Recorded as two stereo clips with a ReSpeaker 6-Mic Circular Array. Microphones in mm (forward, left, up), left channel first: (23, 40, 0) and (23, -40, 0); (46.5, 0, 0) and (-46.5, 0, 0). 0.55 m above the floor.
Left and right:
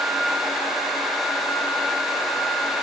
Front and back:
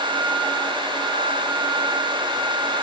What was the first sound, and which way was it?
Only background noise.